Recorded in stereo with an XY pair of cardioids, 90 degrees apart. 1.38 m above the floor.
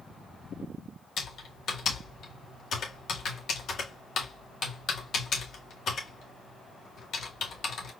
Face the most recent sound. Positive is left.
turn(degrees=65)